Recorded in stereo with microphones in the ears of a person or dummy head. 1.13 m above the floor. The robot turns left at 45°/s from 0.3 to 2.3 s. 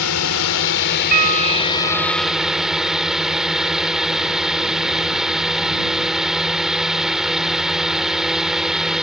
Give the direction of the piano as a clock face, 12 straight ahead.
4 o'clock.